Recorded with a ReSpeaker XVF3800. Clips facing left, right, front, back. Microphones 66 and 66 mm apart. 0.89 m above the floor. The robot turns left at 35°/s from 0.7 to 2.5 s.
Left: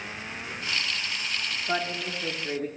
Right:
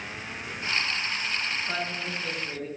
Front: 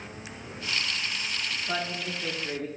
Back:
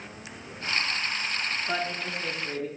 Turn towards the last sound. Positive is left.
turn(degrees=80)